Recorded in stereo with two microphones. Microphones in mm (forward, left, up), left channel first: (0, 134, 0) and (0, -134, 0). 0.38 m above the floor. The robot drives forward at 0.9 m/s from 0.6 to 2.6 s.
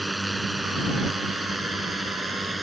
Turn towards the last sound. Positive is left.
turn(degrees=0)  # may be behind; listen again after turning